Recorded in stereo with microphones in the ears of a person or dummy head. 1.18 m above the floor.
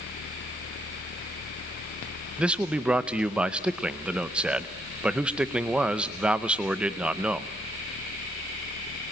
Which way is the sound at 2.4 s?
10° right (ahead or behind).